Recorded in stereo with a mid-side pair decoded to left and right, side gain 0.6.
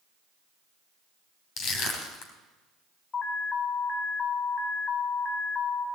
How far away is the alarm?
About 1.6 m.